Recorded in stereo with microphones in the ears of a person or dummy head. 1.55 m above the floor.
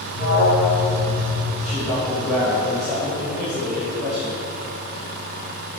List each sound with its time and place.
0.1 s an alarm: 55° right (ahead or behind), 2 m
1.6 s a man speaking: centre (ahead or behind), 2.5 m